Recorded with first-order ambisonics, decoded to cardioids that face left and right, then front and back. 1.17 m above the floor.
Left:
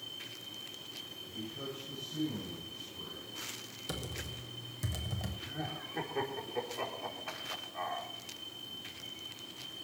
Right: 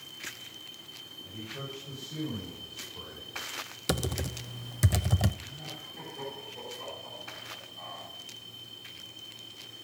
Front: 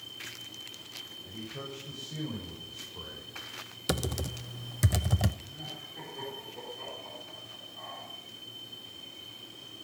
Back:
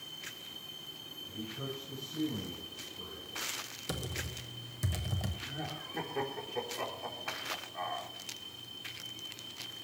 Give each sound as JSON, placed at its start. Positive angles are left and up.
{"t": 1.2, "sound": "a man speaking", "azimuth_deg": -45, "distance_m": 7.0}
{"t": 3.9, "sound": "typing on a keyboard", "azimuth_deg": -50, "distance_m": 0.5}
{"t": 5.4, "sound": "laughter", "azimuth_deg": 135, "distance_m": 3.5}